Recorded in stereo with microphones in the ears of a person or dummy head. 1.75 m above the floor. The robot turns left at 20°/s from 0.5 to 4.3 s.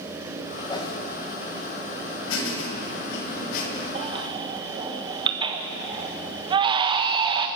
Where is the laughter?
80° left, 9.5 m; by 3.9 s 50° left, 9.5 m.